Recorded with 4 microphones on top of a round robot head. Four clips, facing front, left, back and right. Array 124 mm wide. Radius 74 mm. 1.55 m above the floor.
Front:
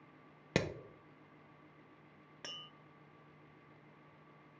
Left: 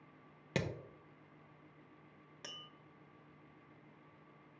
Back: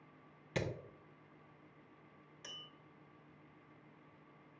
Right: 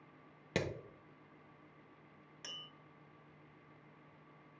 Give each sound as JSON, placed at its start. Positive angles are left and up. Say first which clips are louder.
{"t": 0.6, "sound": "hammering", "louder": "right 1 dB, front 4 dB", "azimuth_deg": 0, "distance_m": 0.9}
{"t": 2.4, "sound": "tapping", "louder": "left 1 dB, front 4 dB", "azimuth_deg": 20, "distance_m": 0.9}